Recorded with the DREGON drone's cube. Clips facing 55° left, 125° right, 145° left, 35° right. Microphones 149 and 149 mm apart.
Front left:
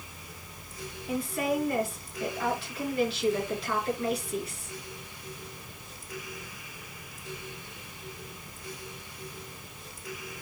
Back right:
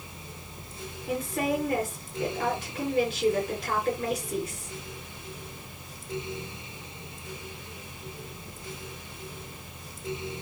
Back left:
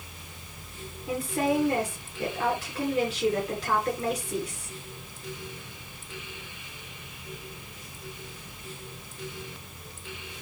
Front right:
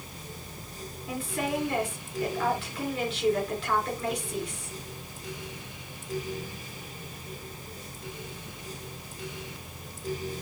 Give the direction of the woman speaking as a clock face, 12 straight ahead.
6 o'clock.